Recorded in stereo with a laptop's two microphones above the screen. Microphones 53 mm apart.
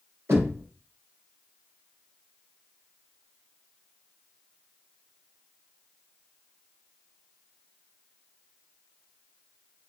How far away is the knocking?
About 2.5 m.